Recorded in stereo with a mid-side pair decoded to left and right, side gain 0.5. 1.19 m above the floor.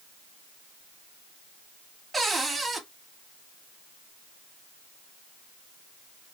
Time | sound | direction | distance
2.1 | a cupboard door | 20° right | 1.9 m